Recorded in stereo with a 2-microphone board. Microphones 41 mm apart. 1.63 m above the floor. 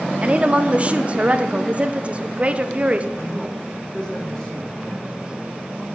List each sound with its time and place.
0.2 s a woman speaking: 35° right (ahead or behind), 0.5 m
3.1 s a man speaking: 15° left (ahead or behind), 3 m